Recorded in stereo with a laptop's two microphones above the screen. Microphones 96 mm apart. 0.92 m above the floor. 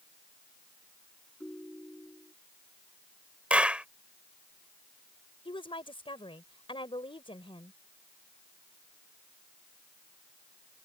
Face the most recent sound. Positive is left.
turn(degrees=80)